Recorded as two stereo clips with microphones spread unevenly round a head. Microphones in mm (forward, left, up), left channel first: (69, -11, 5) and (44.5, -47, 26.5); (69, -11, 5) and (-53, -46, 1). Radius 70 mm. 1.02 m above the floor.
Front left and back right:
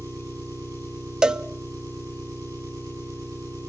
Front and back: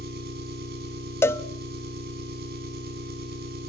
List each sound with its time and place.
0.0 s an engine running: 175° right, 7.5 m
1.2 s a cowbell: 55° right, 0.8 m